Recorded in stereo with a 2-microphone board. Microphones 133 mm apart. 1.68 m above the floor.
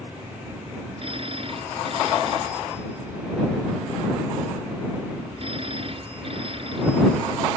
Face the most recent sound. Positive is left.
turn(degrees=-45)  # may be behind; listen again after turning